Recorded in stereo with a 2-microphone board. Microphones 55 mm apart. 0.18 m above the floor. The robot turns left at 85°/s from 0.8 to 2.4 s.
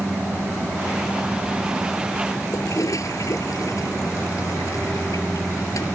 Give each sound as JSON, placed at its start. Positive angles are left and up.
{"t": 2.5, "sound": "a toilet flushing", "side_deg": 65}